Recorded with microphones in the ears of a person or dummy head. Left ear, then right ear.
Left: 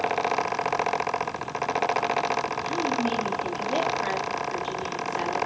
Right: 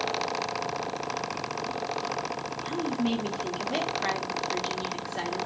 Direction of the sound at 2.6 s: 10° right (ahead or behind).